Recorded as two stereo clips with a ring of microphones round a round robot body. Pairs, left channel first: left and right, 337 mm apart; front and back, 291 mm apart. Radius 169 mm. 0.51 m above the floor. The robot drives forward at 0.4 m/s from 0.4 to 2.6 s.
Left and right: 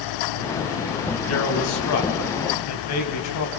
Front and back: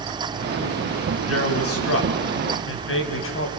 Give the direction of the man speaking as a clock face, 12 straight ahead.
11 o'clock.